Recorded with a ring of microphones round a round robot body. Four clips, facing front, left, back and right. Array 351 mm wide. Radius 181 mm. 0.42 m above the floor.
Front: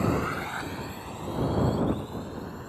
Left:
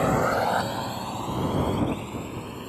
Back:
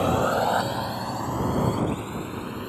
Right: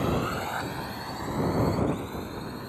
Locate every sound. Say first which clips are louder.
0.0 s a drone: left 6 dB, back 6 dB; 135° left; by 2.7 s 170° left